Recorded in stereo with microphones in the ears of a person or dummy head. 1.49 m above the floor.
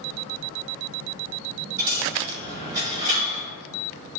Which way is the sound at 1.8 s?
35° right (ahead or behind).